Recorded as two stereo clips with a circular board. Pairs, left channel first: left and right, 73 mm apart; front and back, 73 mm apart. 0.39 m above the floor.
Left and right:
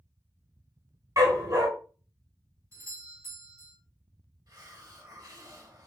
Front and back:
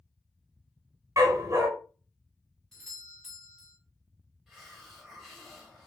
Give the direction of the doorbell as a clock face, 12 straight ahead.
3 o'clock.